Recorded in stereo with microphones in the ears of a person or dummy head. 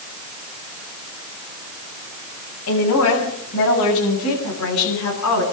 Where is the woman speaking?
80° left, 8.5 m; by 5.4 s 65° left (ahead or behind), 10 m.